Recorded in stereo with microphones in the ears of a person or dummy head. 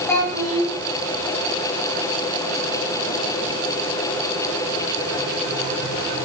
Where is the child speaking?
10° left (ahead or behind), 3 m.